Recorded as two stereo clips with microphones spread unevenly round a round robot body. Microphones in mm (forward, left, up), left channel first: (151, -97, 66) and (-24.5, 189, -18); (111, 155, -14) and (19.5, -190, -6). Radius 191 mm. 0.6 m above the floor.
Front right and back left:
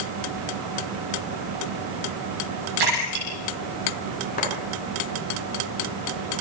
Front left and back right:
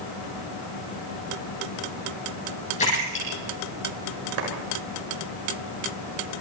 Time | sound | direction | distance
2.8 | a splash | 150° left | 8 m
4.4 | a clap | 130° right | 6 m